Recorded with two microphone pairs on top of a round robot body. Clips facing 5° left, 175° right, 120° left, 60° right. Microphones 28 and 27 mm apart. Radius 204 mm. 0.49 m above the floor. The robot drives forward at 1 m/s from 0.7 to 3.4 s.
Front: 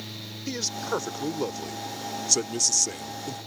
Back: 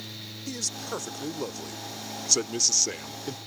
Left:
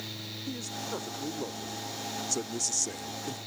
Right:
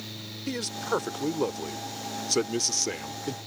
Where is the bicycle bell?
No bicycle bell in this recording.